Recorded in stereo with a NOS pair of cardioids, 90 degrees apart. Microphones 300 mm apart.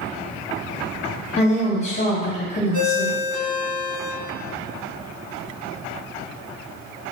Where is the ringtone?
35° right, 1.5 m.